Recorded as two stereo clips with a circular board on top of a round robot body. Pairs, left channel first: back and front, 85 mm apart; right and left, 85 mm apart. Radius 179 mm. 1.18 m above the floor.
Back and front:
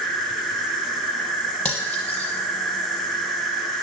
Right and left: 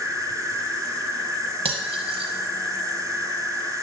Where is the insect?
80° left, 1.4 m.